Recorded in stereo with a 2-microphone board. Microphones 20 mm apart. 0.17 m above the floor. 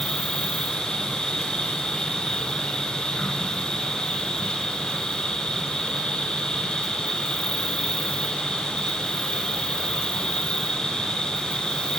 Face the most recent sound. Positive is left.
turn(degrees=50)  # may be behind; listen again after turning